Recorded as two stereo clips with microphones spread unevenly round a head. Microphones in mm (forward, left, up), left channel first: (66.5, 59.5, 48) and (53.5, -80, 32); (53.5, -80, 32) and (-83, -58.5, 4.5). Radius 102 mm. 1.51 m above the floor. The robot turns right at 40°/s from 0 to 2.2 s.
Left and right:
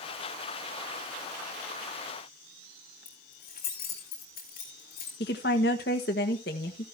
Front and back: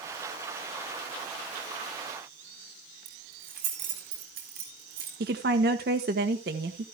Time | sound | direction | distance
3.0 | keys jangling | 135° left | 3 m
5.2 | a woman speaking | 125° left | 1.2 m